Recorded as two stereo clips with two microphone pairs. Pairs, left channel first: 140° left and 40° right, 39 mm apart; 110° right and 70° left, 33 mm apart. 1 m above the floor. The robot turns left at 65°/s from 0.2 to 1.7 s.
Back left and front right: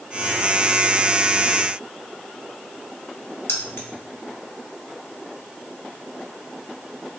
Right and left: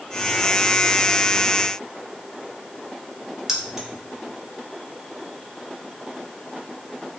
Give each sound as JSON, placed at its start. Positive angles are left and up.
{"t": 3.5, "sound": "keys jangling", "azimuth_deg": 145, "distance_m": 1.0}